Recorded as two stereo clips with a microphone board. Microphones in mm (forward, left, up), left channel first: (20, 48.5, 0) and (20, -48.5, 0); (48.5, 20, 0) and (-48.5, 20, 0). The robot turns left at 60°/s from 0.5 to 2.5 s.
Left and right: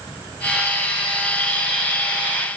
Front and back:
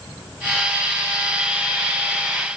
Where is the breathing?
I don't hear breathing.